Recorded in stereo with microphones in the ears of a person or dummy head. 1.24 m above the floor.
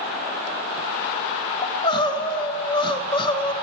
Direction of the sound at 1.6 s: 25° left (ahead or behind).